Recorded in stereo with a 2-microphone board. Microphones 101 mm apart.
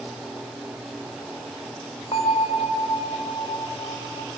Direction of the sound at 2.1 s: 60° left (ahead or behind).